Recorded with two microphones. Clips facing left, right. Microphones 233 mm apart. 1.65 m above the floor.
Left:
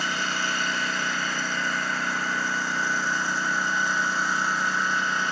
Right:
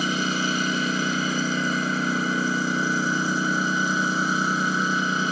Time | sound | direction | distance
0.0 | a lawn mower | 40° right (ahead or behind) | ?